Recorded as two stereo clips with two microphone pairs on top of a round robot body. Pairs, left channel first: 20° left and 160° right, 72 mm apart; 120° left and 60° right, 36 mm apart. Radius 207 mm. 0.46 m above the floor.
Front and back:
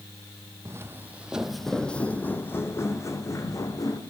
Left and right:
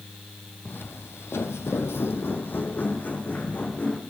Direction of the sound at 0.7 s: 150° left.